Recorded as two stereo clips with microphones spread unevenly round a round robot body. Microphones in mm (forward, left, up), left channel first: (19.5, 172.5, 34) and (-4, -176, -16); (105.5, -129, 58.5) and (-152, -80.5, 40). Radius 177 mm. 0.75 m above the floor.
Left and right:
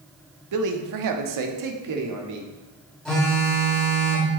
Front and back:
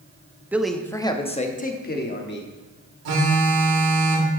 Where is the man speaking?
110° right, 1.0 m; by 2.5 s 60° right, 1.7 m.